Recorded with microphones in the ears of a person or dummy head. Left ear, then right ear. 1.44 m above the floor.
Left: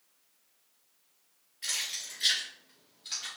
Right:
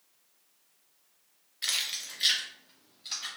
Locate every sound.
1.6 s keys jangling: 35° right (ahead or behind), 0.8 m; by 3.3 s 20° right (ahead or behind), 3 m